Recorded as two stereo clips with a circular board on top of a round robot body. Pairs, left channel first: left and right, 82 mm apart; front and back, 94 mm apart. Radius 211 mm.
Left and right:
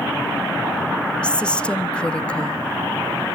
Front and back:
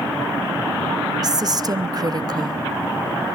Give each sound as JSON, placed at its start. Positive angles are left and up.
{"t": 1.2, "sound": "a woman speaking", "azimuth_deg": 165, "distance_m": 1.3}